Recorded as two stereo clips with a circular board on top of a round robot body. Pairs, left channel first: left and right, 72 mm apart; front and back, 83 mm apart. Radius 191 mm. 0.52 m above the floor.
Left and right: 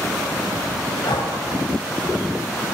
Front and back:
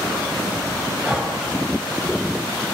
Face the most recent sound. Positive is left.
turn(degrees=100)